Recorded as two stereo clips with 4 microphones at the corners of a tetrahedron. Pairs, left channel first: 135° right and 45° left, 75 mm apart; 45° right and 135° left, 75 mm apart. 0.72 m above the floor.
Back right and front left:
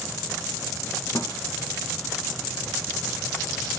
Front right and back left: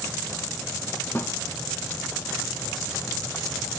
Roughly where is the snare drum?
Right.